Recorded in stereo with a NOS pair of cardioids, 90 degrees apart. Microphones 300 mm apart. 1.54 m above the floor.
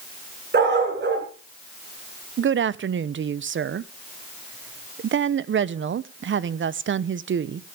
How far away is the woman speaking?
About 0.9 m.